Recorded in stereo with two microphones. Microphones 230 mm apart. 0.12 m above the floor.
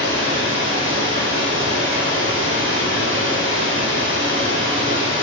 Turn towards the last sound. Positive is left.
turn(degrees=-70)  # may be behind; listen again after turning